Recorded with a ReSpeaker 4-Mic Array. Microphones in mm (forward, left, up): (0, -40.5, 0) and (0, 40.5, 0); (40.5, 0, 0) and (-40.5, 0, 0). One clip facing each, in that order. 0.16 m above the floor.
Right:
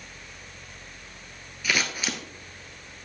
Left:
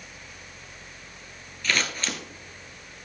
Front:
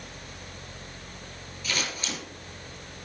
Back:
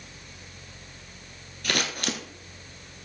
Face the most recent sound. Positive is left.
turn(degrees=-170)